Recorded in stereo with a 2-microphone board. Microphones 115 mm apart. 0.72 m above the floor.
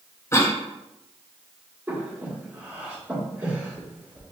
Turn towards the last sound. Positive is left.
turn(degrees=-15)  # may be behind; listen again after turning